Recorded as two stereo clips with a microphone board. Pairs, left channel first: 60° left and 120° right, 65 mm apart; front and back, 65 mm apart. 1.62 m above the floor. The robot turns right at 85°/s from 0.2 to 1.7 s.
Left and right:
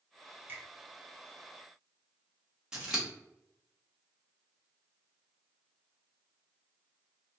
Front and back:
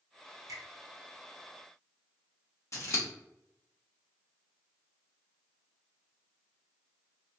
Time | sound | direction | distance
0.5 | a finger snap | 175° right | 0.7 m
2.7 | scissors | 40° right | 0.8 m